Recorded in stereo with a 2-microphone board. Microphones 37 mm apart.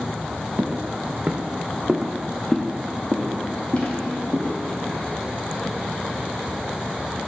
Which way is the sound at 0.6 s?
55° right (ahead or behind).